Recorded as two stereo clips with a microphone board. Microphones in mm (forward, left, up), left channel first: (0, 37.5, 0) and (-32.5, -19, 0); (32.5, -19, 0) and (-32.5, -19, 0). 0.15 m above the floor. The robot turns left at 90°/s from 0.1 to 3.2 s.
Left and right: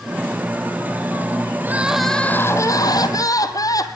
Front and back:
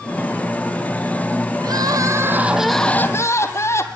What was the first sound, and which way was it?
Crying, 175° right.